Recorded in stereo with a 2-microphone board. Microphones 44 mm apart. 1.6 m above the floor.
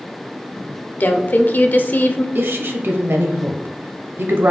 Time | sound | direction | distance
1.0 | a woman speaking | 45° left (ahead or behind) | 0.5 m
2.4 | a woman speaking | 65° right (ahead or behind) | 0.7 m